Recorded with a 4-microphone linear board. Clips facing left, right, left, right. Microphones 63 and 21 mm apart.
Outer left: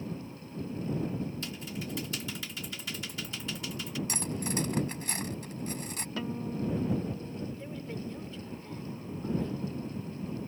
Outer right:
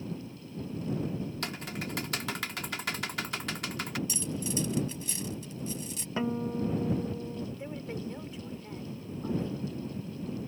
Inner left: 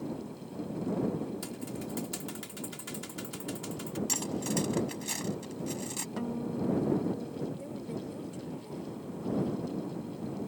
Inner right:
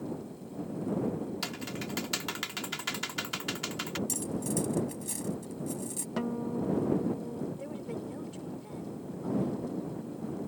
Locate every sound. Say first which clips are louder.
1.4 s typing on a keyboard: outer right 2 dB, inner right 2 dB; 60° right (ahead or behind)
4.1 s cutlery clinking: outer left 1 dB, inner left 1 dB; 50° left (ahead or behind)
6.2 s a guitar: outer right 4 dB, inner right 2 dB; 25° right (ahead or behind)
7.6 s a woman speaking: outer right 1 dB, inner right 1 dB; 20° right (ahead or behind)